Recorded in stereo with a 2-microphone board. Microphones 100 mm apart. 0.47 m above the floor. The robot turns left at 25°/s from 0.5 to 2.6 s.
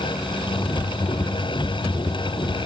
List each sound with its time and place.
Only background noise.